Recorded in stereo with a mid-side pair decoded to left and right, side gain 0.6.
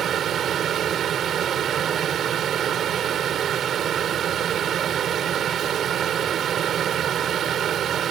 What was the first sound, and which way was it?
A fan, 50° right.